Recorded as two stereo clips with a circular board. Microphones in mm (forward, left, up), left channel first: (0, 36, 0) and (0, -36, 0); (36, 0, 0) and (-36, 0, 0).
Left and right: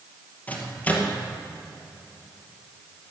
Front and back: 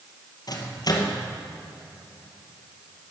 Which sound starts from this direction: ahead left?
A microwave, at 0.5 s.